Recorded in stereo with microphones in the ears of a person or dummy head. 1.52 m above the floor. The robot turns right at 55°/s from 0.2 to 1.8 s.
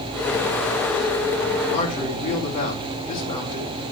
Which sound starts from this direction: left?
A man speaking, at 1.7 s.